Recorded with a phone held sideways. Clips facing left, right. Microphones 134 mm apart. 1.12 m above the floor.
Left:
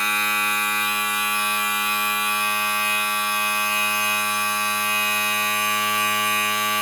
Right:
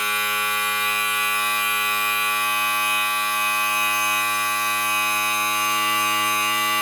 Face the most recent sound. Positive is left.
turn(degrees=-65)  # may be behind; listen again after turning